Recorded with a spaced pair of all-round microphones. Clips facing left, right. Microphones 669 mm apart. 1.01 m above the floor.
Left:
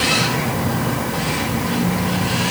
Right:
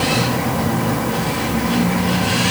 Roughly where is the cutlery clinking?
I don't hear cutlery clinking.